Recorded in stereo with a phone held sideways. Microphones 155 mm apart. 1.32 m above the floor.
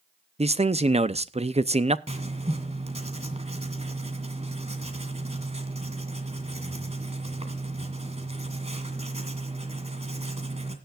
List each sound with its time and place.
0.4 s a man speaking: 40° right (ahead or behind), 0.6 m
2.1 s writing: 45° right (ahead or behind), 2.5 m